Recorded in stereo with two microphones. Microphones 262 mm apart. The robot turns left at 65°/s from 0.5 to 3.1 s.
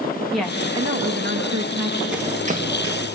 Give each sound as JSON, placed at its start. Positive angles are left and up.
{"t": 0.3, "sound": "a woman speaking", "azimuth_deg": 0, "distance_m": 6.0}
{"t": 2.1, "sound": "running footsteps", "side_deg": 0, "distance_m": 4.0}